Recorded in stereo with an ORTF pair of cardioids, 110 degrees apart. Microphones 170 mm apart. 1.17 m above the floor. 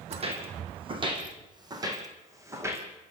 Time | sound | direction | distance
0.1 | footsteps | 40° right | 4 m